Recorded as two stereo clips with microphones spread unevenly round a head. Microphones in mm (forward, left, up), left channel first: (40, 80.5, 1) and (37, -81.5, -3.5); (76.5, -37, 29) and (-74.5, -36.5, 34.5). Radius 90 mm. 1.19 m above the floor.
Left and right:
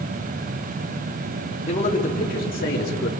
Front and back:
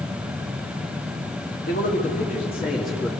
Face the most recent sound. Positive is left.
turn(degrees=70)